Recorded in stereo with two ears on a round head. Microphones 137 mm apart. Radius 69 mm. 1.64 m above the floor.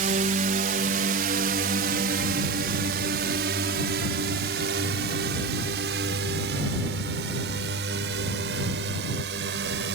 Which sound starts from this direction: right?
A drone, at 0.0 s.